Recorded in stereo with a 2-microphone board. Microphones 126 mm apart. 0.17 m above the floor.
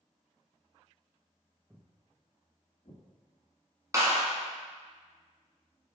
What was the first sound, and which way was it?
Footsteps, 5° right (ahead or behind).